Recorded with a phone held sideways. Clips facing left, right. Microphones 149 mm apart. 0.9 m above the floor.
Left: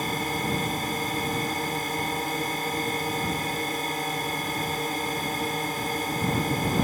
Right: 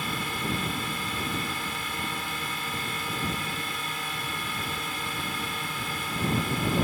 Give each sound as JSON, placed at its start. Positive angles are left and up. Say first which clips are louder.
{"t": 0.0, "sound": "a drone", "louder": "left 4 dB", "side_deg": 45}